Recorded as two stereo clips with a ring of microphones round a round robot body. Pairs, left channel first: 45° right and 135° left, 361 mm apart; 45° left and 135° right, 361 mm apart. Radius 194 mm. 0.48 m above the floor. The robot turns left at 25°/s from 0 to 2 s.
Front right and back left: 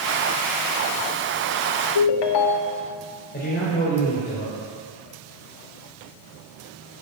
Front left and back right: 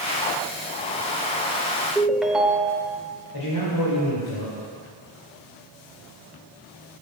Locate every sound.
1.9 s a ringtone: 45° right, 1.0 m
3.3 s a man speaking: 20° left, 2.5 m